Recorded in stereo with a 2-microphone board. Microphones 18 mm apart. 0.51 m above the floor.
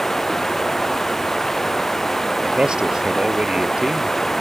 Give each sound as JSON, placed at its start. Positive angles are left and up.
{"t": 0.0, "sound": "running water", "side_deg": 30}
{"t": 2.4, "sound": "a man speaking", "side_deg": -60}